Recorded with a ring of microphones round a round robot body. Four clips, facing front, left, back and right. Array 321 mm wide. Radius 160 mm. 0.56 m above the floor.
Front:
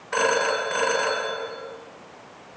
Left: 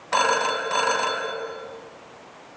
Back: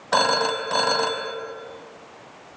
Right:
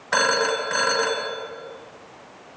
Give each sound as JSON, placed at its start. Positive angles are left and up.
{"t": 0.1, "sound": "a phone ringing", "azimuth_deg": -160, "distance_m": 2.0}